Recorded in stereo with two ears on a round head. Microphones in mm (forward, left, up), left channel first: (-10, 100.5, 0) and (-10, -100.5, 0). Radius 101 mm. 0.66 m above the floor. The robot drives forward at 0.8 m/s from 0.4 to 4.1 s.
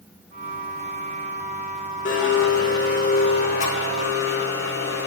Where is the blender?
50° left (ahead or behind), 2.5 m; by 5.1 s 35° left (ahead or behind), 4 m.